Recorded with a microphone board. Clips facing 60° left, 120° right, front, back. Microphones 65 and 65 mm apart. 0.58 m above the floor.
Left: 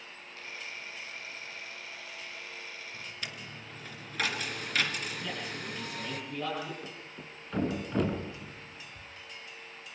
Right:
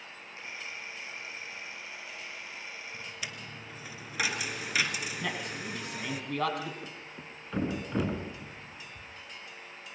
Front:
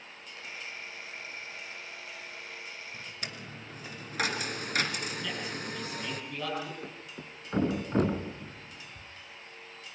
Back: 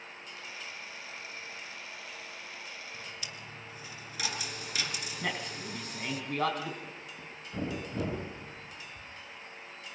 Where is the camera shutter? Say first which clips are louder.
Right 1 dB, front 3 dB; 55° right, 9 m.